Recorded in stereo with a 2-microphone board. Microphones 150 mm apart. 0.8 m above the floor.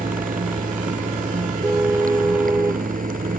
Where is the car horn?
15° right (ahead or behind).